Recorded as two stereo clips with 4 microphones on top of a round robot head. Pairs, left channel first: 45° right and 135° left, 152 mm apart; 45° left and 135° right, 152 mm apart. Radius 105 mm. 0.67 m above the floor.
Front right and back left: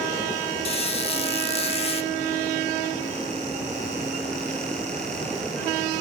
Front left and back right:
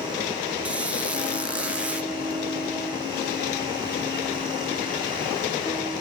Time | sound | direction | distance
0.7 | a squeak | 55° right | 0.6 m